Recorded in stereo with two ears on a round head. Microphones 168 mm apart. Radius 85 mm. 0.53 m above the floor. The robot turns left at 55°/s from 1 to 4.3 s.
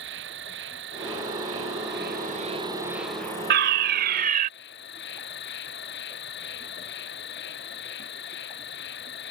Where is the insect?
65° right; by 9.3 s 115° left.